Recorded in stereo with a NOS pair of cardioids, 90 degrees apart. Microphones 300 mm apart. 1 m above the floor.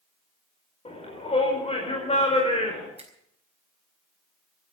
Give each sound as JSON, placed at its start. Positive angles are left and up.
{"t": 0.8, "sound": "a shout", "azimuth_deg": 20, "distance_m": 4.5}
{"t": 3.0, "sound": "a finger snap", "azimuth_deg": -20, "distance_m": 4.0}